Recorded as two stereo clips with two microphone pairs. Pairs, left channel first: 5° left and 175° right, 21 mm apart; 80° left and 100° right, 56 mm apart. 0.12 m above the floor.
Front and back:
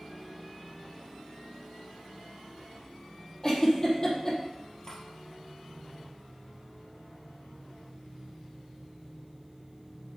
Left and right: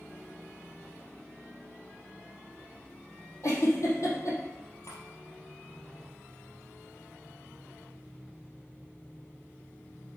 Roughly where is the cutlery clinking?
Ahead left.